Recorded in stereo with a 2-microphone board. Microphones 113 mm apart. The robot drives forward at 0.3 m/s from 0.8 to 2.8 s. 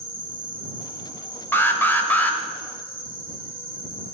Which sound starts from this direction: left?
An insect, at 0.0 s.